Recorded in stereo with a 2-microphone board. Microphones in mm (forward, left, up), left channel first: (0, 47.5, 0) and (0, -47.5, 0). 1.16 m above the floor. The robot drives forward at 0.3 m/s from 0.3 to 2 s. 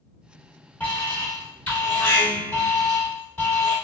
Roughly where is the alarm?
Centre.